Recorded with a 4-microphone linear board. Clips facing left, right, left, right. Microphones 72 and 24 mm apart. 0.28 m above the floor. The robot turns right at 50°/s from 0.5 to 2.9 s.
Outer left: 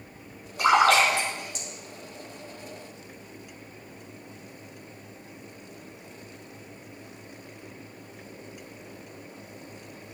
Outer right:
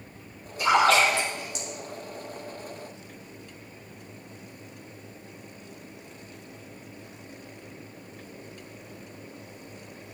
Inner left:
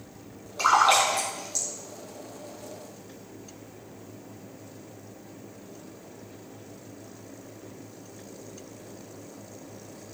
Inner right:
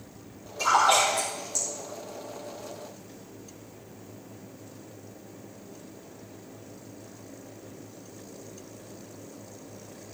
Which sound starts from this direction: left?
A splash, at 0.6 s.